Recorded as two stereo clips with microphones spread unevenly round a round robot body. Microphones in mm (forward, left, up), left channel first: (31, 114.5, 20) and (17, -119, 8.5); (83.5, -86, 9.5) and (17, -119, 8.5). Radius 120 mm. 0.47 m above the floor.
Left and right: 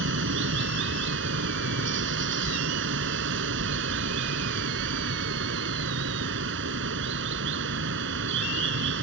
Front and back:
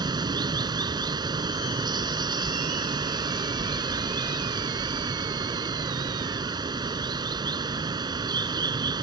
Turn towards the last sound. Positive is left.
turn(degrees=-135)